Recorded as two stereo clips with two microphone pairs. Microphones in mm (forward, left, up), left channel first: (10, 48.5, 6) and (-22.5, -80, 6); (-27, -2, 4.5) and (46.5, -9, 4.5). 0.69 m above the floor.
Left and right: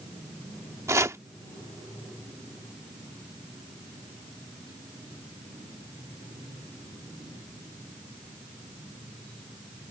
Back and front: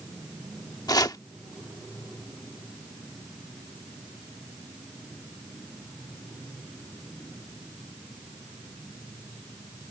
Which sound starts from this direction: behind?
Chopping, at 0.9 s.